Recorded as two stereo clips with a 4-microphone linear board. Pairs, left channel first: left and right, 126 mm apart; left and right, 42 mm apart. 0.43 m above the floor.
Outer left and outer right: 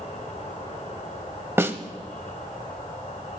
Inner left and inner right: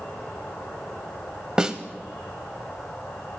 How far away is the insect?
About 8 m.